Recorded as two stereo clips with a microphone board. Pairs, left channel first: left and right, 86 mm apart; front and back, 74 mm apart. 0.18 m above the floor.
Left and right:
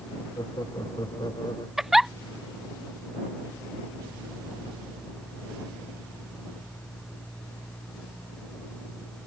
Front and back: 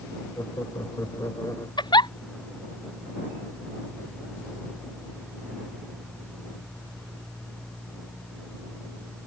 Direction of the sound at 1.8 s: 5° right.